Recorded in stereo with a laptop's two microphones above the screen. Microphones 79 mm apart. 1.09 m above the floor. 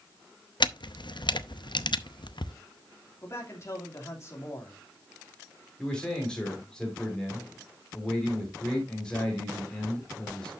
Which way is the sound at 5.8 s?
10° left (ahead or behind).